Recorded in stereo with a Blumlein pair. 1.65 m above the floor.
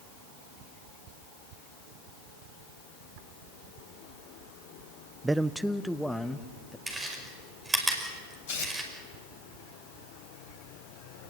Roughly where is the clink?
I don't hear a clink.